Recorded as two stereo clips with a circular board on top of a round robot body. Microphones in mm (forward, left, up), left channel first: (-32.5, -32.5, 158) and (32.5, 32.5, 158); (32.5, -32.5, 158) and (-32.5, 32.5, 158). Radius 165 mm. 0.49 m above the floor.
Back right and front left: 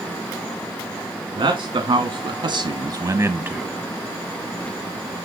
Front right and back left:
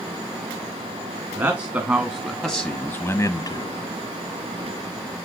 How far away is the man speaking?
About 2.0 m.